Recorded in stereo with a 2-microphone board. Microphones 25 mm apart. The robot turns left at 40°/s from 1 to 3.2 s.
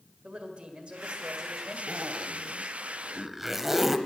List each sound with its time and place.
0.2 s a woman speaking: 125° right, 1.8 m; by 1.8 s 155° right, 1.8 m
1.9 s a zipper: 65° right (ahead or behind), 0.6 m; by 4.0 s 15° right (ahead or behind), 0.6 m